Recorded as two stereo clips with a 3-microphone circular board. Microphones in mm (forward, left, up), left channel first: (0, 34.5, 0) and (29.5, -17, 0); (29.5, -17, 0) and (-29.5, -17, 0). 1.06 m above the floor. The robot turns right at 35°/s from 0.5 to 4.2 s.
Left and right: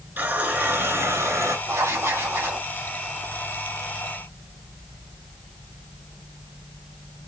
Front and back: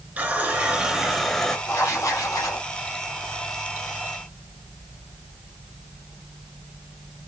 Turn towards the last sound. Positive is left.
turn(degrees=45)